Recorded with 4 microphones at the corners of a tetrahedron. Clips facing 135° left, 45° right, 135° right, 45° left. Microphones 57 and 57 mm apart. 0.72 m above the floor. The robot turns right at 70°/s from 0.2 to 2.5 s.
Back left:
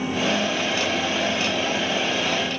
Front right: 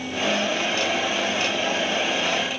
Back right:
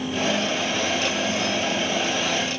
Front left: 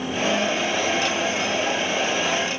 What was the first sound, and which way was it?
Only background noise.